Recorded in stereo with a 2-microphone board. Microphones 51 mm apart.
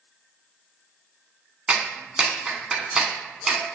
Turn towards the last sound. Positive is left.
turn(degrees=-20)  # may be behind; listen again after turning